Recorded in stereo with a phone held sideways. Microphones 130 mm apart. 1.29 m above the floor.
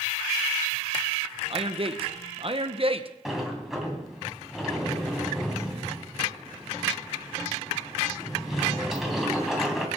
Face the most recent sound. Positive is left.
turn(degrees=-5)  # may be behind; listen again after turning